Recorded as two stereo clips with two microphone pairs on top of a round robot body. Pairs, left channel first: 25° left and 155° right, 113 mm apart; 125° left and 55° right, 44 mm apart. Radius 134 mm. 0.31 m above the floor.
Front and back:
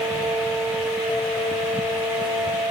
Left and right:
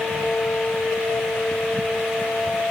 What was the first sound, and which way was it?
Only background noise.